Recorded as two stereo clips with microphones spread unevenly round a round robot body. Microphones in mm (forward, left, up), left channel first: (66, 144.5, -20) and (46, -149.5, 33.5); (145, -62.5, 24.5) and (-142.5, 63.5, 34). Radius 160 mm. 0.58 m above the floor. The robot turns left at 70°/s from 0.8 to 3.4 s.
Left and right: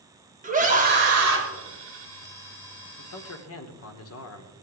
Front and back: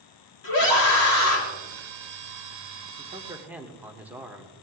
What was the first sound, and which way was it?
A scream, 30° right.